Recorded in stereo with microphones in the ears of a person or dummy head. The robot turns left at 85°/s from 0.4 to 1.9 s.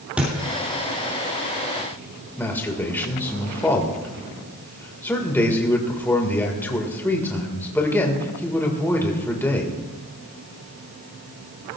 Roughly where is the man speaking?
Centre.